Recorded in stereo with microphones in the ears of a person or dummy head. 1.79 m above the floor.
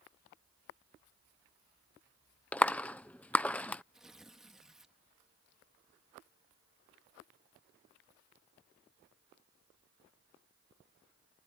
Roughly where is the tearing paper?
Centre.